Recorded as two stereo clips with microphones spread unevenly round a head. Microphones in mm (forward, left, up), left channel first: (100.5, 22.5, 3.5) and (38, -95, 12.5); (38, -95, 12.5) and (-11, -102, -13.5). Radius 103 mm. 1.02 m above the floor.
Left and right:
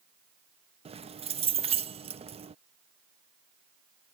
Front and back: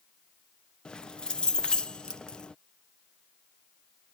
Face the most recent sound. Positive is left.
turn(degrees=-70)